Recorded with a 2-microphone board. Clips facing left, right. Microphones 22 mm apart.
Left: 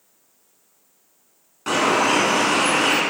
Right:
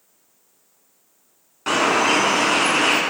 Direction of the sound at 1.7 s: 15° right (ahead or behind).